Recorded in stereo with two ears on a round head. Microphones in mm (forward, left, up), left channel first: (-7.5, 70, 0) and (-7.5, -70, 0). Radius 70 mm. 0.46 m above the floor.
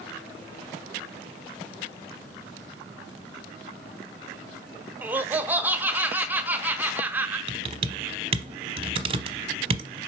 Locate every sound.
5.0 s laughter: 10° right (ahead or behind), 0.8 m
7.5 s typing on a keyboard: 35° right (ahead or behind), 0.8 m